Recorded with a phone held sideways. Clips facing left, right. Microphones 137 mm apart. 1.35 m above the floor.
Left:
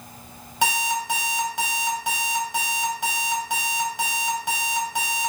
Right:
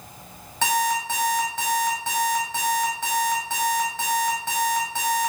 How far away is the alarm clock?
About 4 m.